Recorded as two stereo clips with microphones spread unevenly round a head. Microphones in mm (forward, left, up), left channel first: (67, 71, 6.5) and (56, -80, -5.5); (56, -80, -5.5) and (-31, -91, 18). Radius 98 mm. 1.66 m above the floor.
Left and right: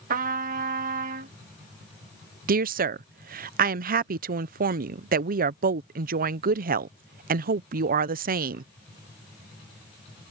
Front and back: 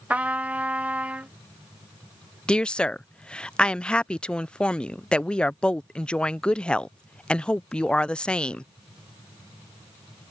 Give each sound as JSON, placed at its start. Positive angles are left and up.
{"t": 0.1, "sound": "a trumpet", "azimuth_deg": -115}
{"t": 2.5, "sound": "a woman speaking", "azimuth_deg": -80}